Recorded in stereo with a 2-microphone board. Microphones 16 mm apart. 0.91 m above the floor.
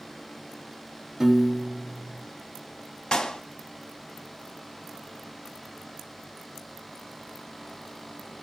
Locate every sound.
1.2 s a piano: 35° right (ahead or behind), 0.7 m
3.1 s a clap: 65° left (ahead or behind), 1.0 m